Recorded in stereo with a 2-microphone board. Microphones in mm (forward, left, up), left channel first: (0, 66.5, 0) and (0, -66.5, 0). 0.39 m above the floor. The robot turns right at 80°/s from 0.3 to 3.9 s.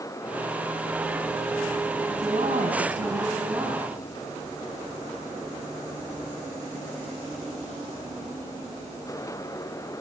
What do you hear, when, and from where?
2.1 s a woman speaking: 150° right, 3.5 m; by 4.0 s 5° right, 3.5 m